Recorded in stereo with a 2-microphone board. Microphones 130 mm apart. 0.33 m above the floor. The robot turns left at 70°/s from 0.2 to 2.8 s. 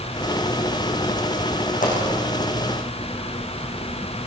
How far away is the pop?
About 8 m.